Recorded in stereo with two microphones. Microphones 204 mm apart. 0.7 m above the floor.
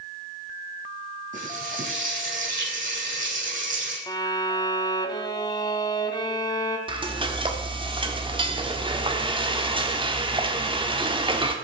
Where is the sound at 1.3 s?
40° right (ahead or behind), 8.5 m.